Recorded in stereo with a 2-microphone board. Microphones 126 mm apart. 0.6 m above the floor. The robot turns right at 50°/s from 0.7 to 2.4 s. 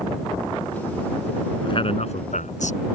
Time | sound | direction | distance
1.6 | a man speaking | 40° left | ?